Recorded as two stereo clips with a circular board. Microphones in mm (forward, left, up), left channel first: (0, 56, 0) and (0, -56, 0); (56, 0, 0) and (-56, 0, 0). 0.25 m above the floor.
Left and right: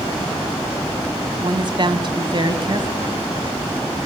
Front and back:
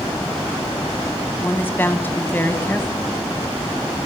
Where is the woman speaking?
65° right, 1.6 m.